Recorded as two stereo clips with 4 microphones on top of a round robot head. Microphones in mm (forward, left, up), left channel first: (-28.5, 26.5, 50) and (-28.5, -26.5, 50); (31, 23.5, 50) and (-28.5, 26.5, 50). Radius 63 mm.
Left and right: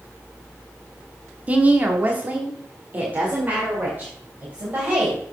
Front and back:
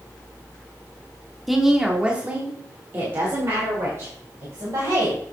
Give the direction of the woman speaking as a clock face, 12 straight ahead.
3 o'clock.